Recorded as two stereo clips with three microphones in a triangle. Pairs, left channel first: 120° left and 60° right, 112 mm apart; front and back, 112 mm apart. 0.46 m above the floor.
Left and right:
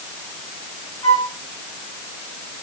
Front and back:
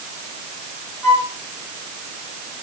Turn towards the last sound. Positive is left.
turn(degrees=60)